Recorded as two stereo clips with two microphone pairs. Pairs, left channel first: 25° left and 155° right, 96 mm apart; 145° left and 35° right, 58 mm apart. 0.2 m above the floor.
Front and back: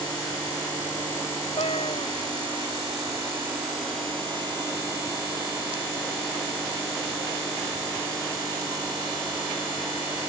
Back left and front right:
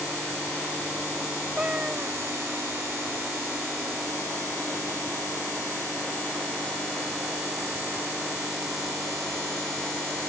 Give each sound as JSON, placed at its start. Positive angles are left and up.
{"t": 1.6, "sound": "a cat meowing", "azimuth_deg": 35}